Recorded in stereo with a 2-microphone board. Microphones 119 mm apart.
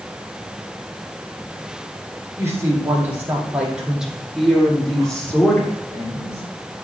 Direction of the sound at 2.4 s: 20° right (ahead or behind).